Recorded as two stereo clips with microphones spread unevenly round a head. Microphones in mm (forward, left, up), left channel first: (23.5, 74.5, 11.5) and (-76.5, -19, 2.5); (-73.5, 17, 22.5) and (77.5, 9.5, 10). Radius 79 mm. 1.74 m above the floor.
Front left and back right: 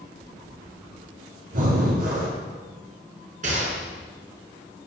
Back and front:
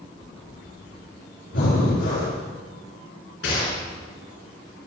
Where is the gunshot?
170° right, 6 m.